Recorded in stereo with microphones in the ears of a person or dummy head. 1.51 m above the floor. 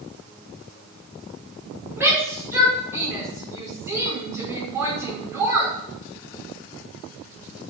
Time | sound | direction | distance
2.0 | a shout | 10° right (ahead or behind) | 5 m